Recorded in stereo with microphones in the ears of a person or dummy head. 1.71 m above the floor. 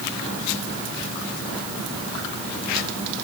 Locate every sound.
Only background noise.